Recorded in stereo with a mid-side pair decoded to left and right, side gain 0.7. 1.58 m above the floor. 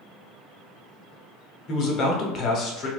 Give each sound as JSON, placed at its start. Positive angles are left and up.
{"t": 1.7, "sound": "a man speaking", "azimuth_deg": 50, "distance_m": 0.8}